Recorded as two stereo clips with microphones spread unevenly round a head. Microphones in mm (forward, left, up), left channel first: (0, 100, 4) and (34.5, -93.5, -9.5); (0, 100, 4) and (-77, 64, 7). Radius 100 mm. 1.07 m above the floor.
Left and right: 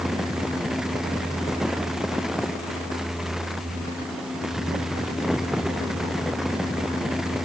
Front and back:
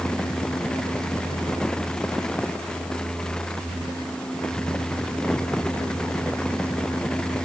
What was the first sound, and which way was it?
Only background noise.